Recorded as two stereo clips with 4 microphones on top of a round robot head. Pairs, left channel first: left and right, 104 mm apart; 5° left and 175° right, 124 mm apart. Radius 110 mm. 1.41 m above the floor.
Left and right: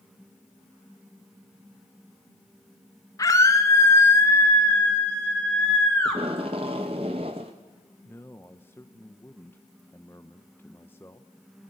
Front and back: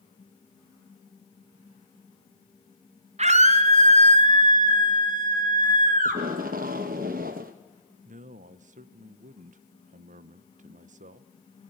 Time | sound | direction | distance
3.2 | a scream | 155° left | 2.5 m
6.0 | tape being pulled | 145° right | 0.8 m
8.1 | a man speaking | 165° left | 0.8 m